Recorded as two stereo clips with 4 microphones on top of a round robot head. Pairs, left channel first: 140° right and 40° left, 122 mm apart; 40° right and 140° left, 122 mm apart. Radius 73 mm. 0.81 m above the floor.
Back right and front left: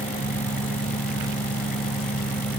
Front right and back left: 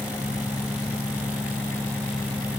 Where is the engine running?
115° right.